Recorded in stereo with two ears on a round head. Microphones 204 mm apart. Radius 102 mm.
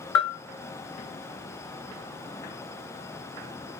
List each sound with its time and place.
0.1 s a bell: 80° left, 0.6 m